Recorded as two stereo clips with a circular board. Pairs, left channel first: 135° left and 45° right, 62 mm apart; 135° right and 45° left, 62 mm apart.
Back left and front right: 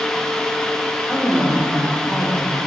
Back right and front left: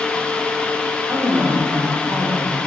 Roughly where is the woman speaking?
Ahead left.